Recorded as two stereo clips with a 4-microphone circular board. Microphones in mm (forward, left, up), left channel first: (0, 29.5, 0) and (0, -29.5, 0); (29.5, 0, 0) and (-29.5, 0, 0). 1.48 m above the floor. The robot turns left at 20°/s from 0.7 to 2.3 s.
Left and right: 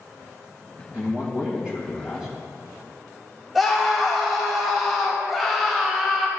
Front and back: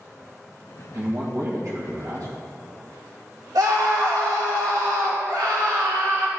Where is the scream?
Straight behind, 1.4 m.